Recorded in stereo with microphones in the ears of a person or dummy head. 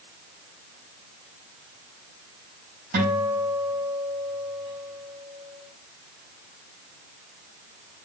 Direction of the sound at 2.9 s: 60° right (ahead or behind).